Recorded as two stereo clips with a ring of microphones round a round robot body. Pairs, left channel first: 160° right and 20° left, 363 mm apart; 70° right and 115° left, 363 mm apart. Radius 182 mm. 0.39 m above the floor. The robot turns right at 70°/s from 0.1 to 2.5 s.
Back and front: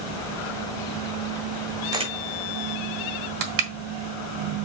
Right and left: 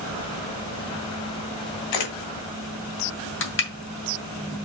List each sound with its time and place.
1.9 s a camera shutter: 60° right, 2.5 m; by 2.1 s 45° right, 2.5 m
3.4 s crushing: 10° right, 2.5 m